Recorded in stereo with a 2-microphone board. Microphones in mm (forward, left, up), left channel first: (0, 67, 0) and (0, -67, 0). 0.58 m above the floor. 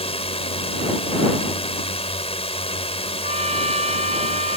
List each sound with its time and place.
0.0 s a drone: 50° left (ahead or behind)
3.2 s a trumpet: 55° right (ahead or behind)